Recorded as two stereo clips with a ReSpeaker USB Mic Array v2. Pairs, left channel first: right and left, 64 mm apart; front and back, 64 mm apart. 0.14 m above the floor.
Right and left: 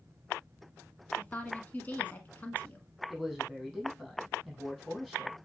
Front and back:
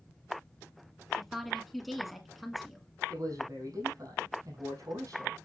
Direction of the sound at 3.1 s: 175° right.